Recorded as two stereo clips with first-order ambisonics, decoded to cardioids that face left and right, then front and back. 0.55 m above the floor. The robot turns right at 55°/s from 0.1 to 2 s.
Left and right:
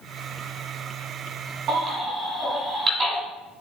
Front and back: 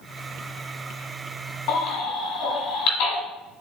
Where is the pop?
No pop in this recording.